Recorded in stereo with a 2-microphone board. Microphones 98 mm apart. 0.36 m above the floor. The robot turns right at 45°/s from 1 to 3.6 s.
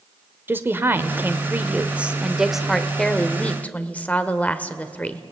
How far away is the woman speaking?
About 1.0 m.